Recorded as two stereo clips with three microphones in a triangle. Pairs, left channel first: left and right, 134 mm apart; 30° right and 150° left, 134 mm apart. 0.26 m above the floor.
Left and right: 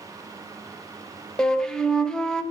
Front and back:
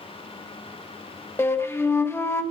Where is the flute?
15° left, 0.7 m.